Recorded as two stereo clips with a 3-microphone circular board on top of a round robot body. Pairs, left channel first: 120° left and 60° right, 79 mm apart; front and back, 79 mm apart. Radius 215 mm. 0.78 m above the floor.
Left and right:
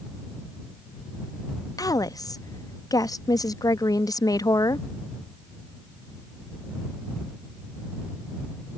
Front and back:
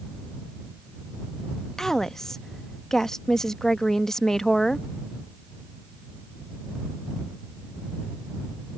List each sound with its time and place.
1.8 s a woman speaking: 80° left